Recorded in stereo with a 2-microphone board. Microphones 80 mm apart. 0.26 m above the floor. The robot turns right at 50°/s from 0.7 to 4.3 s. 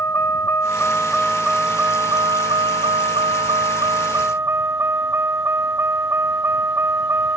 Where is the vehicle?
150° left; by 7.4 s 30° right.